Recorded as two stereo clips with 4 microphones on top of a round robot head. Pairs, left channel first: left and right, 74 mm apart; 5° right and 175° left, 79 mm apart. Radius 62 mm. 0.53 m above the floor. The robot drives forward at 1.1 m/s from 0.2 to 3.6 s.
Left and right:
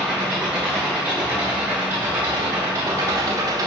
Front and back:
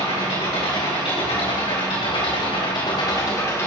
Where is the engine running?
15° right, 4.5 m; by 3.7 s 60° right, 1.4 m.